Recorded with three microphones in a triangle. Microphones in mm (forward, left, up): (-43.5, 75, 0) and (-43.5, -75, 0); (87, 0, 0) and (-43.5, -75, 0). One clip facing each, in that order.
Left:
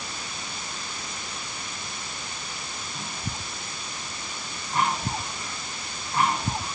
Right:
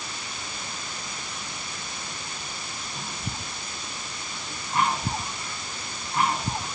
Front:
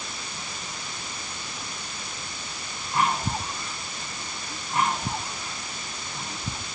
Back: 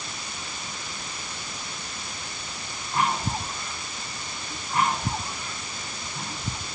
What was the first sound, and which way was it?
Only background noise.